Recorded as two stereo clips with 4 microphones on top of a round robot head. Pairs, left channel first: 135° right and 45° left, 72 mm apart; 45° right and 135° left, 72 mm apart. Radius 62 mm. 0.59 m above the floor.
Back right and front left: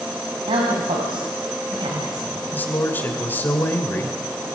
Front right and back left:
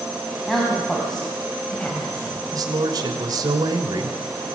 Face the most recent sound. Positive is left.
turn(degrees=160)